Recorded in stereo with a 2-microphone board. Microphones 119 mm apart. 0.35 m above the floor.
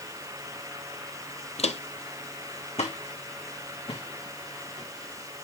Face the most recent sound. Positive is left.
turn(degrees=60)  # may be behind; listen again after turning